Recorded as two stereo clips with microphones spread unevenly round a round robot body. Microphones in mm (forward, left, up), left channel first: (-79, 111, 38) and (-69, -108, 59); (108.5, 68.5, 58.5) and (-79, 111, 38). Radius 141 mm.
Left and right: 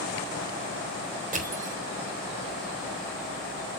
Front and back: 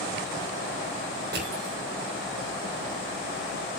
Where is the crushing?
140° right, 4 m.